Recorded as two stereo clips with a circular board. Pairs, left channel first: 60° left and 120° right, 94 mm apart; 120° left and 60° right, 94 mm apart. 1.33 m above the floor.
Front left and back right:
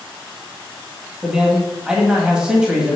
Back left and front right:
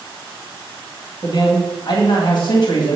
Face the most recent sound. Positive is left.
turn(degrees=160)